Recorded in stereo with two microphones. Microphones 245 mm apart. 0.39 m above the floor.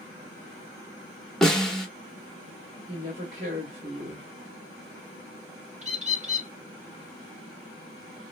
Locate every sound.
1.4 s a snare drum: centre (ahead or behind), 1.3 m
2.9 s a woman speaking: 45° right (ahead or behind), 1.9 m
5.8 s a bird: 30° right (ahead or behind), 1.0 m